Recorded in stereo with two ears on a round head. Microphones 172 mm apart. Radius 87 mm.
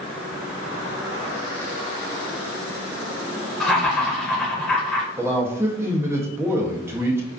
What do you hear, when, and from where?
3.6 s laughter: 5° left (ahead or behind), 0.6 m
5.2 s a man speaking: 15° right (ahead or behind), 0.5 m